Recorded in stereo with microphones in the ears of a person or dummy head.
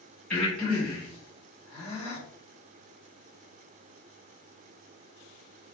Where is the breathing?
15° left (ahead or behind), 2 m.